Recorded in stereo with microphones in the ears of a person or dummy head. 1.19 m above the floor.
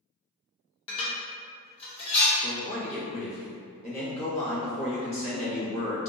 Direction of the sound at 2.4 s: 35° left (ahead or behind).